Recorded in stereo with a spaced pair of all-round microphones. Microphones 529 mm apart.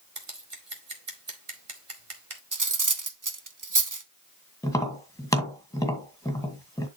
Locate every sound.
0.1 s scissors: 70° right (ahead or behind), 1.8 m
2.5 s cutlery clinking: 35° right (ahead or behind), 0.8 m
4.6 s tapping: 5° left (ahead or behind), 2 m